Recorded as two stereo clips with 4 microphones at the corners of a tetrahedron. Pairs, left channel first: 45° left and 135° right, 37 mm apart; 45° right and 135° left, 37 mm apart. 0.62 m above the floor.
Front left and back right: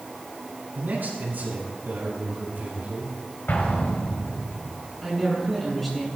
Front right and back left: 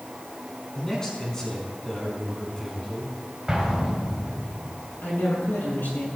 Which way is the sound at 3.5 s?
60° left.